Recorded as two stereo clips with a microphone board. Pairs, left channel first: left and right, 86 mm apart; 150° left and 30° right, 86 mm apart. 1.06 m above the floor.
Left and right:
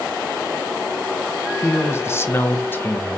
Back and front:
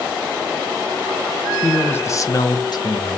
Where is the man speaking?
80° left, 0.5 m; by 3.2 s 155° left, 0.9 m.